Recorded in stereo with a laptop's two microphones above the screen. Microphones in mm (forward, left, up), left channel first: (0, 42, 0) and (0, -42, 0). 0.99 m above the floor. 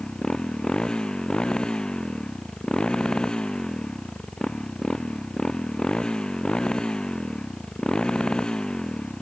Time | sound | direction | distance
0.0 | a motorcycle | 10° left (ahead or behind) | ?